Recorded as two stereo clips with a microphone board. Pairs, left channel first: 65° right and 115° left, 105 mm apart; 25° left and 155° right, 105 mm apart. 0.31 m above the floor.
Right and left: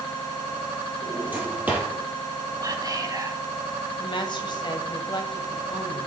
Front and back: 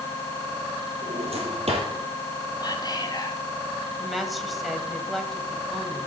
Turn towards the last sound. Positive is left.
turn(degrees=-65)